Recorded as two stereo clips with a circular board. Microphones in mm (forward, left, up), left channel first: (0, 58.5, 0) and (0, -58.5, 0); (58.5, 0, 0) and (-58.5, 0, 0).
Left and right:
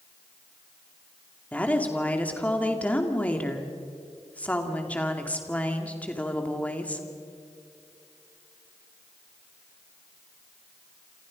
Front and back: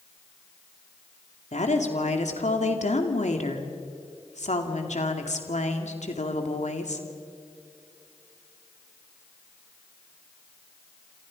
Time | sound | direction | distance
1.5 | a woman speaking | 10° left | 2.5 m